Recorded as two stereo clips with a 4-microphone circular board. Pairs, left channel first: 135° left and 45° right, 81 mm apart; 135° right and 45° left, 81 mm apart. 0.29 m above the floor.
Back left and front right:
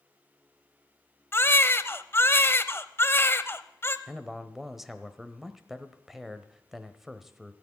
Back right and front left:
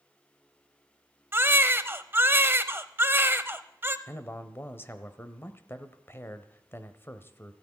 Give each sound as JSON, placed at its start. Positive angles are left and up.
{"t": 1.3, "sound": "a baby crying", "azimuth_deg": 95, "distance_m": 0.6}
{"t": 4.1, "sound": "a man speaking", "azimuth_deg": -130, "distance_m": 1.0}